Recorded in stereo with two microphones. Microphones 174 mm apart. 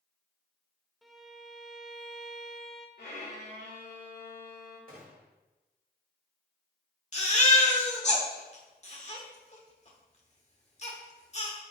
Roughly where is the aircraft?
No aircraft in this recording.